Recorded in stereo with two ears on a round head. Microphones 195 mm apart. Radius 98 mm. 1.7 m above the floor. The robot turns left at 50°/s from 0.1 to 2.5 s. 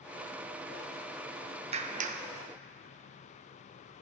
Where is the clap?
30° right (ahead or behind), 0.7 m; by 2.2 s 35° right (ahead or behind), 0.7 m.